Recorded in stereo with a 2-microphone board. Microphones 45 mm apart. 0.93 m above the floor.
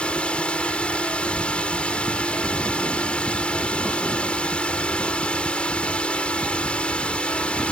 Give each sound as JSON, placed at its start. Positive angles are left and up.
{"t": 0.0, "sound": "a drone", "side_deg": 25}